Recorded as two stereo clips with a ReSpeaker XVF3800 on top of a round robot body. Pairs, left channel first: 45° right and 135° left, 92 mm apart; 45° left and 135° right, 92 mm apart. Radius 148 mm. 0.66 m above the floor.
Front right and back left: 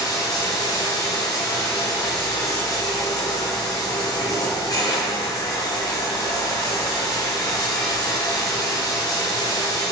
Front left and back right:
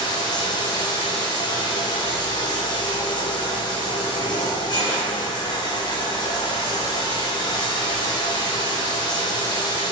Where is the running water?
5° left, 1.5 m.